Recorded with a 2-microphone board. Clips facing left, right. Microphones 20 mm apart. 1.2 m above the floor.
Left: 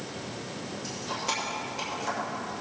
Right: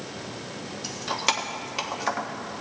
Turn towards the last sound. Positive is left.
turn(degrees=-70)  # may be behind; listen again after turning